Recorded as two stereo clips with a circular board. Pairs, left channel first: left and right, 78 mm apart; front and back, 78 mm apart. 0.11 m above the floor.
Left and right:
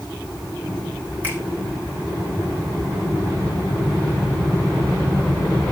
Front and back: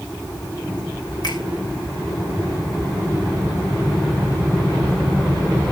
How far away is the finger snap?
About 4.5 m.